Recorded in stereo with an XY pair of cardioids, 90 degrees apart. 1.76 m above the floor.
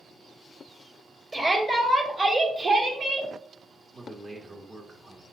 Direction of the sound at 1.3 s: 20° right.